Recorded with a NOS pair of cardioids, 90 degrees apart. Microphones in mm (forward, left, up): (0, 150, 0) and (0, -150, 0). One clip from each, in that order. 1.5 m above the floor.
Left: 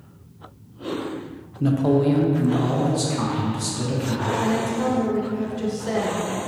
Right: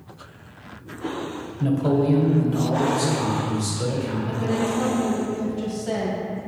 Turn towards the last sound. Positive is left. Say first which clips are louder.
# left 3 dB
turn(degrees=20)